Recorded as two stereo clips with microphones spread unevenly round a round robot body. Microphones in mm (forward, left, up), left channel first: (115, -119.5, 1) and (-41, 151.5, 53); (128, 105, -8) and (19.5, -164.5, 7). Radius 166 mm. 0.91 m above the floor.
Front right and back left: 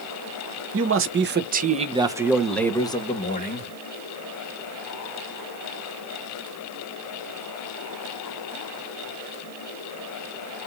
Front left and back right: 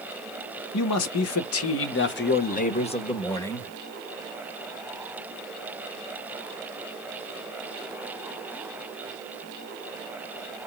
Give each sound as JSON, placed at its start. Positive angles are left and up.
{"t": 0.7, "sound": "a man speaking", "azimuth_deg": 75, "distance_m": 1.7}